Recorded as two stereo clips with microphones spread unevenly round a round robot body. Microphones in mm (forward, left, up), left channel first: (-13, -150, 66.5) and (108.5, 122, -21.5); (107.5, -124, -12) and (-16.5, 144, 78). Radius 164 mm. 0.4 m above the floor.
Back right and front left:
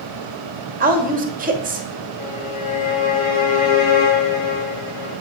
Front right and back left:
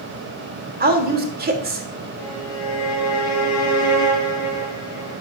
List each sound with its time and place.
0.8 s a woman speaking: 50° left, 1.6 m
2.2 s a violin: 100° right, 3 m